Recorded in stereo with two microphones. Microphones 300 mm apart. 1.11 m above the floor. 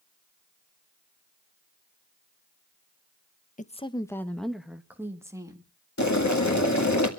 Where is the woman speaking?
30° left (ahead or behind), 0.7 m; by 5.7 s 10° right (ahead or behind), 1.8 m.